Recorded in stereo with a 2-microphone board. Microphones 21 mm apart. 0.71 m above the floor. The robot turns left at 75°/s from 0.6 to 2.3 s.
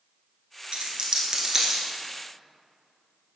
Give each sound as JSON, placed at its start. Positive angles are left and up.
{"t": 0.7, "sound": "a dropped coin", "side_deg": -65, "distance_m": 1.2}